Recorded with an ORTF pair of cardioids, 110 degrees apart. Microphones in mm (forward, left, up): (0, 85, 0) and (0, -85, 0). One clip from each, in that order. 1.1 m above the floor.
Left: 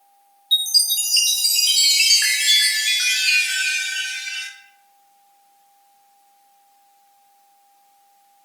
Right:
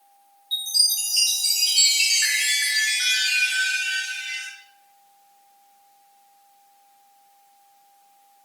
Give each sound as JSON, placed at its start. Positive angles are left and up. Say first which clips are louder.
{"t": 0.5, "sound": "a chime", "louder": "left 4 dB", "azimuth_deg": 35, "distance_m": 1.7}